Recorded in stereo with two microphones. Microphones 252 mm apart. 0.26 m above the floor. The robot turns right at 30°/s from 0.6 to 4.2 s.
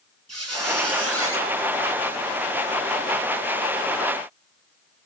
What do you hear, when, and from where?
0.3 s a squeak: 75° right (ahead or behind), 1.2 m; by 1.4 s 55° right (ahead or behind), 1.2 m